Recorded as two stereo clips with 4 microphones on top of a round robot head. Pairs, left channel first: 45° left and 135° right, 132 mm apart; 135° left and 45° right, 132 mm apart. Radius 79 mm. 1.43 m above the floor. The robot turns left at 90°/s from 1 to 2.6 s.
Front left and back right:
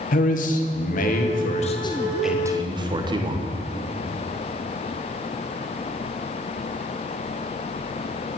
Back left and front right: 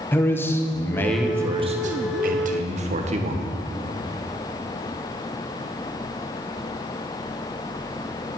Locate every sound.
0.1 s a man speaking: 65° left, 1.7 m; by 3.5 s 80° right, 1.7 m